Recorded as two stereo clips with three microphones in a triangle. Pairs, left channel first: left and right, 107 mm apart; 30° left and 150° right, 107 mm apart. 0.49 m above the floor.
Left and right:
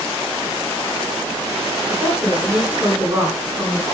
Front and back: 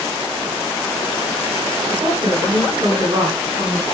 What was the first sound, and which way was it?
A woman speaking, 165° right.